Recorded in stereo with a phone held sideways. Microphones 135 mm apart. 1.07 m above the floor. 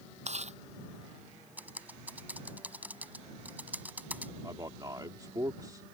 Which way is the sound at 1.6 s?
10° right (ahead or behind).